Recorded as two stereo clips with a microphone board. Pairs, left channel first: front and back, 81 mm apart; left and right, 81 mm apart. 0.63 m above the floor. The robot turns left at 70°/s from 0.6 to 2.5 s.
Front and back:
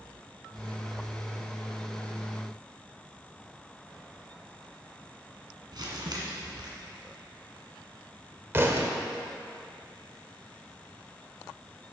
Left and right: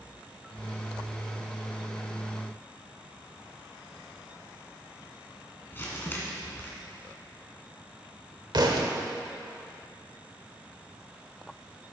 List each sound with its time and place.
5.7 s crumpling: 150° left, 1.9 m
8.5 s a thud: 120° right, 1.1 m